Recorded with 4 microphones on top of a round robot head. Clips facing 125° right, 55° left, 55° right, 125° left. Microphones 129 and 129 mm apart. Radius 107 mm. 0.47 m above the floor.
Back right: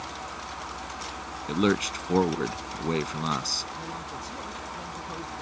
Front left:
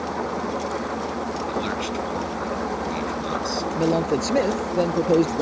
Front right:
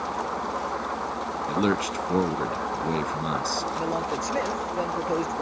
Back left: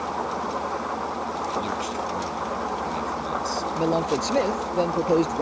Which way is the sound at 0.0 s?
40° left.